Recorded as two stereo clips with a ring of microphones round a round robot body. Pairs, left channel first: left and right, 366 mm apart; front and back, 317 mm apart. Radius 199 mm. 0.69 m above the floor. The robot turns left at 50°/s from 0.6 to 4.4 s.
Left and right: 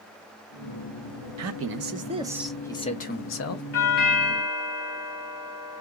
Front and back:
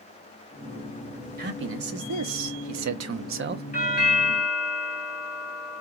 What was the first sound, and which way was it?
A man speaking, 125° right.